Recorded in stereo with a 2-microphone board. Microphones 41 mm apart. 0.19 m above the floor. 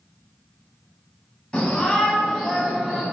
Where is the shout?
20° left (ahead or behind), 1.2 m; by 3.0 s 10° right (ahead or behind), 1.4 m.